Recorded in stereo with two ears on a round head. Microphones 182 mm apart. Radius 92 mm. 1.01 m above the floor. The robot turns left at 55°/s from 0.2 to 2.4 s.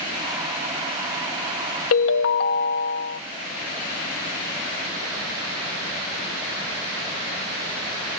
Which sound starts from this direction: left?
A ringtone, at 1.9 s.